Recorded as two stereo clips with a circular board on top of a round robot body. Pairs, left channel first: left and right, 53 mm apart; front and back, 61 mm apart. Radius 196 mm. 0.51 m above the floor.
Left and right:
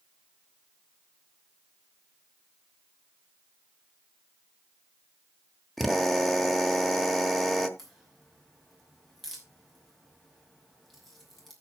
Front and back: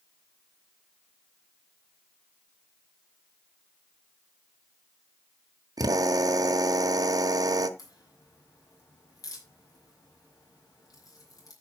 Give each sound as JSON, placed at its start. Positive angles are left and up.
{"t": 5.8, "sound": "a drill", "azimuth_deg": 180, "distance_m": 1.3}
{"t": 7.8, "sound": "a crack", "azimuth_deg": 5, "distance_m": 5.5}